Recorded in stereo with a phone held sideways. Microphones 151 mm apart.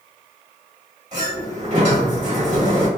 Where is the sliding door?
50° right (ahead or behind), 1.7 m.